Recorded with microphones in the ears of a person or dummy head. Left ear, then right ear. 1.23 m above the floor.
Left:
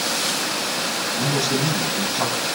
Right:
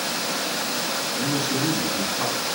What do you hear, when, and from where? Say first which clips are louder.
1.2 s a man speaking: left 4 dB; 75° left (ahead or behind), 8 m